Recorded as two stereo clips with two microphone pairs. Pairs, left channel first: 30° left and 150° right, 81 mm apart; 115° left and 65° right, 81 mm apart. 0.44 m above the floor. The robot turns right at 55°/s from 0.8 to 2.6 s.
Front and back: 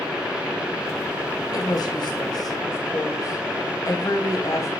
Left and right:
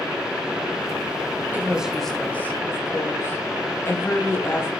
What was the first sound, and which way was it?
A woman speaking, straight ahead.